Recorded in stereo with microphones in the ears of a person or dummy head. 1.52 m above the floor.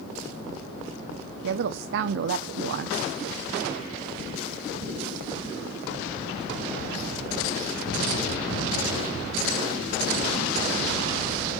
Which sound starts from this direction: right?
A woman speaking, at 1.4 s.